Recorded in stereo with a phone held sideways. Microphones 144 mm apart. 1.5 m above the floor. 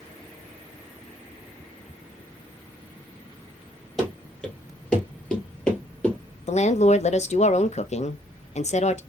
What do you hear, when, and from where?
4.0 s running footsteps: 5° left (ahead or behind), 2.0 m; by 6.2 s 10° left (ahead or behind), 1.7 m
6.5 s a woman speaking: 55° left (ahead or behind), 0.5 m